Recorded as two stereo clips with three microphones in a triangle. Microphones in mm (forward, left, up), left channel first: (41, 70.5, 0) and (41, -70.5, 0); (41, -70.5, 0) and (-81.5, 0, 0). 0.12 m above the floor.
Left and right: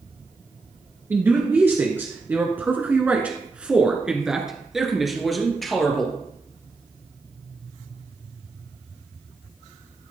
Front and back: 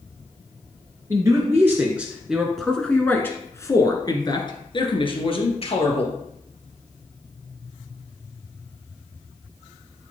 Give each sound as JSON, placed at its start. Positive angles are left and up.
{"t": 1.1, "sound": "a man speaking", "azimuth_deg": -155, "distance_m": 1.8}